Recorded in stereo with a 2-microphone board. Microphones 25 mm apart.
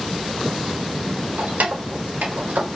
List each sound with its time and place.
1.4 s keys jangling: 80° right, 3.5 m; by 2.7 s 70° right (ahead or behind), 3.5 m